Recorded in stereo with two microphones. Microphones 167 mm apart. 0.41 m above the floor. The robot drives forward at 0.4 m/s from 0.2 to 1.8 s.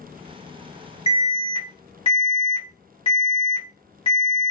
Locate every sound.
1.1 s an alarm: 35° left (ahead or behind), 1.0 m